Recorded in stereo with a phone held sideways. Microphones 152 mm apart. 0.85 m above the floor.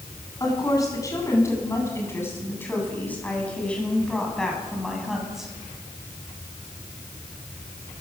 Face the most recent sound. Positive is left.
turn(degrees=-5)  # may be behind; listen again after turning